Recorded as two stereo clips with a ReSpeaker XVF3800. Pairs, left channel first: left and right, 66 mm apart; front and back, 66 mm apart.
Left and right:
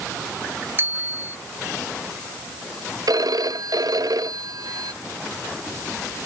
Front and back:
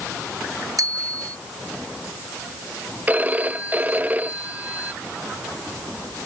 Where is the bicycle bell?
145° right.